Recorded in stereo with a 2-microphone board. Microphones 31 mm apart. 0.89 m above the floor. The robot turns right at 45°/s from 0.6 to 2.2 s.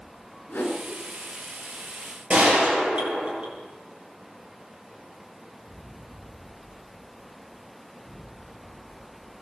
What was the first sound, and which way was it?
A whoosh, 75° left (ahead or behind).